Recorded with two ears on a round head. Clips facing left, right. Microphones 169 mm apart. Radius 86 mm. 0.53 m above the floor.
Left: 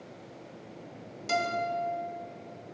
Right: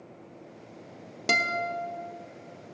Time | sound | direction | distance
1.3 | a guitar | 70° right (ahead or behind) | 0.6 m